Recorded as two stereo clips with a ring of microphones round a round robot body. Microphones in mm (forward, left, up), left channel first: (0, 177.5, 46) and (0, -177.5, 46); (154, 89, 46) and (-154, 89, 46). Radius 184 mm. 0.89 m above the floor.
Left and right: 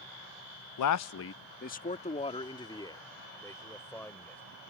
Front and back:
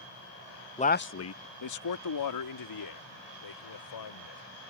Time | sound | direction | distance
0.8 | a man speaking | 70° left | ?